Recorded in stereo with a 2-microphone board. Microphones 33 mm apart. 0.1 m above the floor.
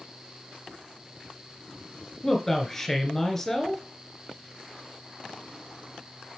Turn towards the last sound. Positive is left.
turn(degrees=10)  # may be behind; listen again after turning